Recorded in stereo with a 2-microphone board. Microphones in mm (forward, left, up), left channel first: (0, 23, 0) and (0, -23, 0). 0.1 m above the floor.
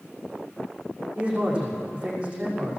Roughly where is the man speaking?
Right.